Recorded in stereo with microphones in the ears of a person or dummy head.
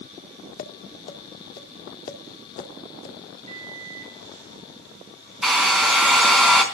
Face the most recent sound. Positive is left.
turn(degrees=-5)  # may be behind; listen again after turning